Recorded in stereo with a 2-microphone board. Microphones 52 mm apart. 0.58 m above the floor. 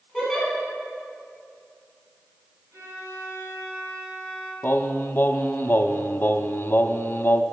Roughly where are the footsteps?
No footsteps in this recording.